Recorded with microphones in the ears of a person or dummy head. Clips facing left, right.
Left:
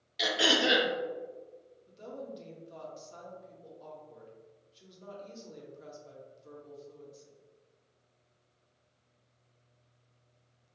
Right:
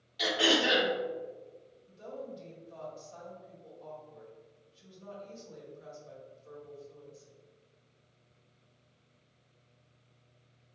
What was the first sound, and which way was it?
Throat clearing, 30° left (ahead or behind).